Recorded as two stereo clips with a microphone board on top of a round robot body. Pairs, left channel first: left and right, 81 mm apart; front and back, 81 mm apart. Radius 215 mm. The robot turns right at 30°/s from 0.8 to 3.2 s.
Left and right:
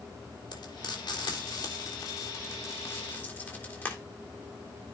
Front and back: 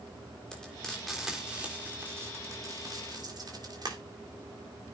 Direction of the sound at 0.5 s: 80° left.